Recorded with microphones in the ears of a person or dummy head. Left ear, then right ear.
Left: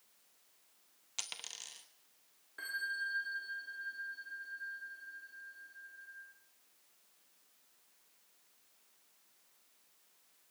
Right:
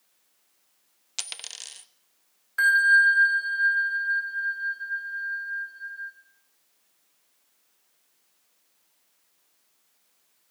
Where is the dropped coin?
15° right (ahead or behind), 0.8 m.